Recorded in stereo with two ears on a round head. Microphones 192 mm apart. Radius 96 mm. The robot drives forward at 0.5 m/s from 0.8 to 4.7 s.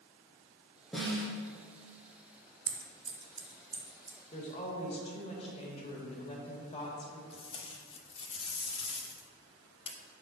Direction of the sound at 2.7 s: 35° right (ahead or behind).